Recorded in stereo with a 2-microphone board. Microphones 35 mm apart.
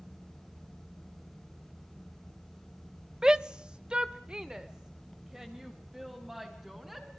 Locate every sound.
3.2 s a shout: 20° right (ahead or behind), 0.8 m; by 7.1 s 15° right (ahead or behind), 4.5 m